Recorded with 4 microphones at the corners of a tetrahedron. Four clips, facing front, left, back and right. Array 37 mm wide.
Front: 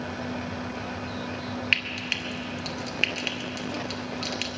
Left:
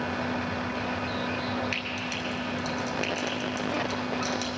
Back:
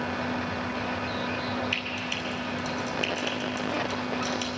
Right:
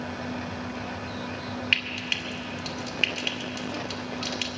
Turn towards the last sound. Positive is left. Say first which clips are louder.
# right 5 dB, front 4 dB
turn(degrees=-30)